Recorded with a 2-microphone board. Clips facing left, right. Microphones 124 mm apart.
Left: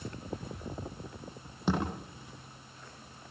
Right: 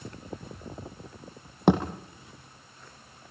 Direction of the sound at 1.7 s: 60° right (ahead or behind).